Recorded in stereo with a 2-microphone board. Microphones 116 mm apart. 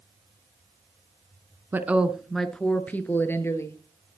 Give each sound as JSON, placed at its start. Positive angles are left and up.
{"t": 1.7, "sound": "a woman speaking", "side_deg": -20, "distance_m": 1.1}